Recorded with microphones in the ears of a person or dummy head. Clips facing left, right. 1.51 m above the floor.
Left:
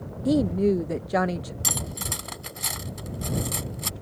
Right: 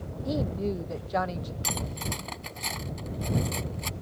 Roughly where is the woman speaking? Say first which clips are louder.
Left 9 dB; left.